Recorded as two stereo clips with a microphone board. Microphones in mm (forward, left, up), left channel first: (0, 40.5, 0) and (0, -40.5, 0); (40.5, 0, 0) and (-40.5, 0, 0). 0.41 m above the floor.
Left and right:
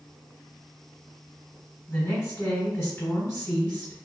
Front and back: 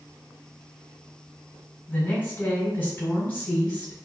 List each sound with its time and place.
1.9 s a woman speaking: 40° left, 1.7 m